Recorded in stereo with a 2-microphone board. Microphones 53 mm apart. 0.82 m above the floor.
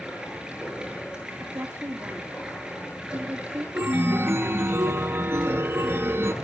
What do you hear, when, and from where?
0.0 s running water: 15° right (ahead or behind), 7.5 m
1.4 s a woman speaking: 50° right (ahead or behind), 1.8 m
3.8 s a chime: 50° right (ahead or behind), 0.8 m